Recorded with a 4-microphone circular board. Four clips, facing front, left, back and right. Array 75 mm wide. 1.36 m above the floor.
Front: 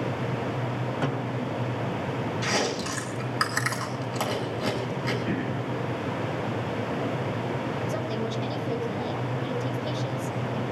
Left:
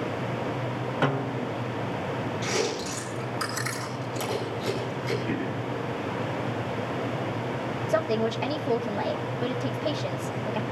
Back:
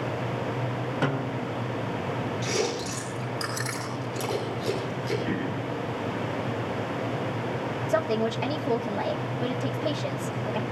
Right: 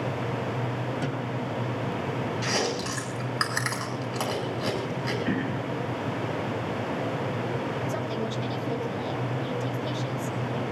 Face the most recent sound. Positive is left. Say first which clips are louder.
# left 5 dB, back 4 dB
turn(degrees=145)